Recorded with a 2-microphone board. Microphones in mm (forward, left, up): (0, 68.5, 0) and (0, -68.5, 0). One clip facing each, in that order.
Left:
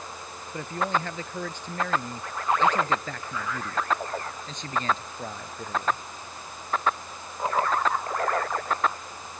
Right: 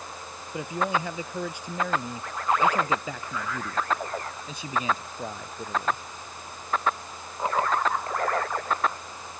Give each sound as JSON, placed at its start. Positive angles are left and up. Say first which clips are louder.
{"t": 0.5, "sound": "a man speaking", "louder": "right 1 dB", "side_deg": -10}